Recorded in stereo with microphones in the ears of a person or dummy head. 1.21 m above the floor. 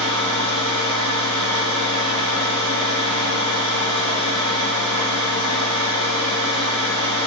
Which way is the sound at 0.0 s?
80° right.